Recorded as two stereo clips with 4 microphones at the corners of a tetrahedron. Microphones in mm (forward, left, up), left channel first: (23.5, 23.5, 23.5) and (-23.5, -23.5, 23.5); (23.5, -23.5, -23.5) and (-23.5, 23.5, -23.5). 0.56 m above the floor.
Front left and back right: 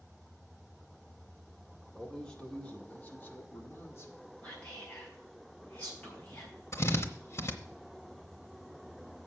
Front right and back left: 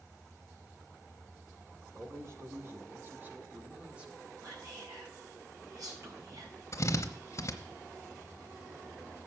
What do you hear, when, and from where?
1.9 s a man speaking: 120° left, 2.0 m; by 4.2 s 60° left, 1.6 m
4.4 s whispering: 110° left, 5 m
6.7 s a drill: 5° right, 0.9 m